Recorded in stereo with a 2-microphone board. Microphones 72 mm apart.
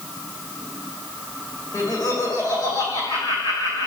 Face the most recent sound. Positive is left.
turn(degrees=80)